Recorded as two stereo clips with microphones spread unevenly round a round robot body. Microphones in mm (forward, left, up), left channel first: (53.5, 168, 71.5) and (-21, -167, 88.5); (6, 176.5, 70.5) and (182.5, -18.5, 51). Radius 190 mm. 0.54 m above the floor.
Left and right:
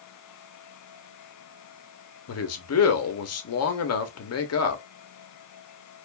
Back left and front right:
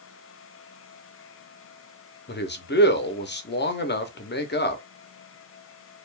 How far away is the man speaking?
About 1.0 m.